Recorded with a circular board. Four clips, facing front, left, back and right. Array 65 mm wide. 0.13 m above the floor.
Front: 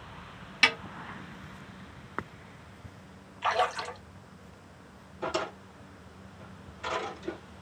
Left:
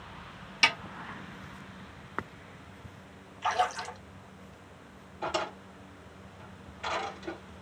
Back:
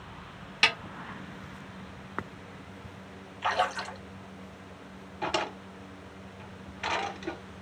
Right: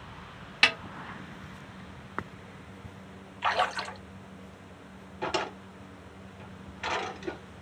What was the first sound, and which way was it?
A snare drum, 95° right.